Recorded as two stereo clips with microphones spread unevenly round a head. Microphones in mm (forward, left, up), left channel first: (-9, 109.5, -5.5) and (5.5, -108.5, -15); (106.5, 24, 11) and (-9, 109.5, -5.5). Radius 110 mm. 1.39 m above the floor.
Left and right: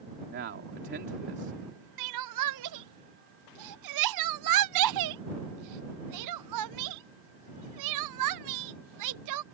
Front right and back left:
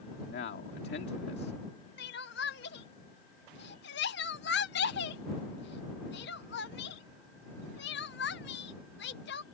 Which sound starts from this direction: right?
Crying, at 2.0 s.